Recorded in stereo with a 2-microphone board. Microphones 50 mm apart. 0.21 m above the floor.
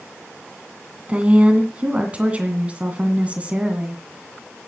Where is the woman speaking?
25° right (ahead or behind), 2 m.